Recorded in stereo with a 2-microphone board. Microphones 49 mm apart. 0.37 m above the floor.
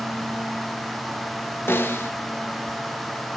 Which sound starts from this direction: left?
A snare drum, at 1.7 s.